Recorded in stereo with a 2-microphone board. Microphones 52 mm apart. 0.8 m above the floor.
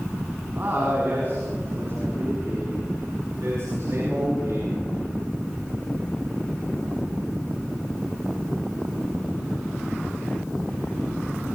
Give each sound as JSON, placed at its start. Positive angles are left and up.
{"t": 0.6, "sound": "a man speaking", "side_deg": -40, "distance_m": 6.5}